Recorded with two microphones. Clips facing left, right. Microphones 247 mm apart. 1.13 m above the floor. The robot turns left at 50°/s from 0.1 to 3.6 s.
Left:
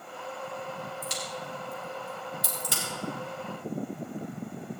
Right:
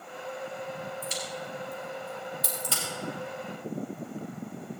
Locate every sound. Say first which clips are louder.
1.0 s a crack: right 1 dB; 75° left (ahead or behind), 4.5 m; by 2.8 s 10° left (ahead or behind), 4.5 m